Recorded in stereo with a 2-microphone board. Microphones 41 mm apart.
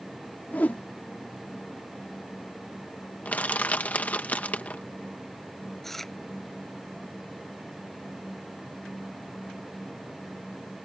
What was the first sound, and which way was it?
A whoosh, 45° left (ahead or behind).